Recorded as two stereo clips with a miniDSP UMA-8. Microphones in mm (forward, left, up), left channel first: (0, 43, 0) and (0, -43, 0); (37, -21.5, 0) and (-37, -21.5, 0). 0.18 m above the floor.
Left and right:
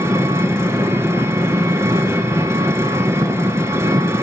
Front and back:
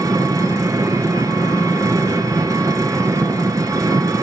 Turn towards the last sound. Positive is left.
turn(degrees=-145)